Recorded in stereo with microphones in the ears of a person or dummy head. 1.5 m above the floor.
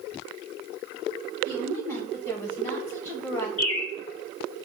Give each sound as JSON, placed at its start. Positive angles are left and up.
{"t": 1.4, "sound": "a woman speaking", "side_deg": 15, "distance_m": 1.3}
{"t": 3.6, "sound": "a bird", "side_deg": 30, "distance_m": 1.7}